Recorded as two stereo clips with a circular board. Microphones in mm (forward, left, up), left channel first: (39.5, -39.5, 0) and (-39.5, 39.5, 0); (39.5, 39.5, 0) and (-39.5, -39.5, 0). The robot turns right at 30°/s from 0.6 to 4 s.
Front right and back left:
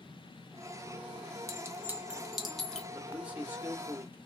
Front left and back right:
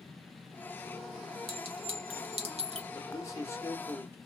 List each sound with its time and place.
1.5 s a clink: 165° right, 1.1 m; by 2.8 s 125° right, 1.1 m
2.9 s a man speaking: 60° left, 1.4 m; by 4.2 s 90° left, 1.4 m